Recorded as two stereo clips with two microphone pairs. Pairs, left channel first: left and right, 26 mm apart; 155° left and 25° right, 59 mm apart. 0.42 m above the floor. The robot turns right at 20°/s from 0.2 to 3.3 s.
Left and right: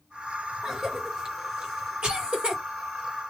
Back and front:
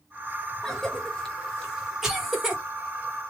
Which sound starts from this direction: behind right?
A cough, at 0.6 s.